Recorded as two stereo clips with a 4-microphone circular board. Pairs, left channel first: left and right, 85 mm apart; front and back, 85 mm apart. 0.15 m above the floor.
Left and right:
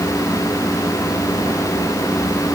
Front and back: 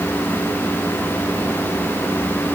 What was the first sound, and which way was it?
Only background noise.